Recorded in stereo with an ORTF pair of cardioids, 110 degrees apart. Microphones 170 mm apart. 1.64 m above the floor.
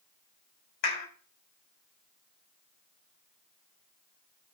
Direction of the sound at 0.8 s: 65° left.